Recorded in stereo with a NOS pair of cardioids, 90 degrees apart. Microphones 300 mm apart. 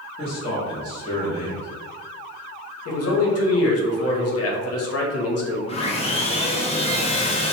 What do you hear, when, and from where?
0.2 s a man speaking: 20° left, 1.3 m
2.9 s a man speaking: 50° left, 0.8 m
5.7 s sawing: 20° left, 0.7 m